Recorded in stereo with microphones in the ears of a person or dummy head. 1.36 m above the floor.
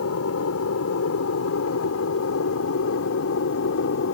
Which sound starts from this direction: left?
An aircraft, at 0.0 s.